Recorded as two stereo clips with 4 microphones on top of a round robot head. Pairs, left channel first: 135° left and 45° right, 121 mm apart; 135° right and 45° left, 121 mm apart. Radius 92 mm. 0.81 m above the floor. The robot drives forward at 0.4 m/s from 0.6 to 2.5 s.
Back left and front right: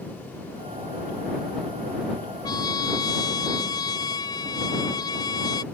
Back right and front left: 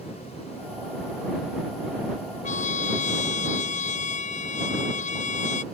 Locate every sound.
2.4 s a trumpet: 165° right